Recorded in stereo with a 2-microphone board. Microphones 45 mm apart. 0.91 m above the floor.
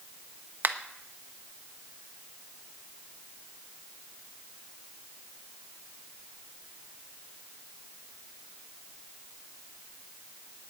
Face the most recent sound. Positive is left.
turn(degrees=-55)  # may be behind; listen again after turning